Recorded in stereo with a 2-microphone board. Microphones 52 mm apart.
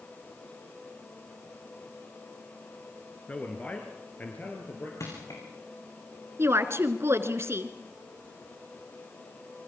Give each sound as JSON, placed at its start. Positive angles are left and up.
{"t": 3.3, "sound": "a man speaking", "side_deg": 25, "distance_m": 2.5}
{"t": 5.0, "sound": "crushing", "side_deg": 85, "distance_m": 8.5}
{"t": 6.4, "sound": "a woman speaking", "side_deg": -55, "distance_m": 1.9}